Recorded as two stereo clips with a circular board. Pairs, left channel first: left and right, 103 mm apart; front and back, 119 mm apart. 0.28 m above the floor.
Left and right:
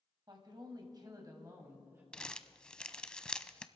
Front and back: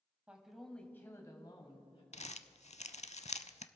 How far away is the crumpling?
About 0.5 m.